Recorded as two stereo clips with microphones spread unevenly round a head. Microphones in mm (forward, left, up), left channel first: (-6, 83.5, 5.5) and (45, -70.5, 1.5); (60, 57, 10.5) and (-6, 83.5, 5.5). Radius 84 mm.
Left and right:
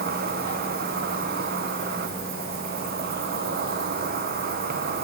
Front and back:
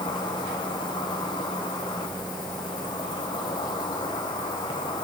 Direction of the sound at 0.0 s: 45° right.